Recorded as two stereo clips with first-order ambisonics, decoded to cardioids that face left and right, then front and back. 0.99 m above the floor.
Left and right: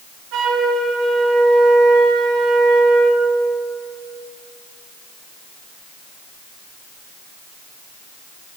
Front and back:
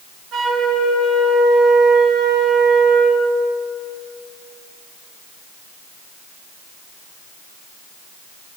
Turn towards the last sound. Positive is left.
turn(degrees=-125)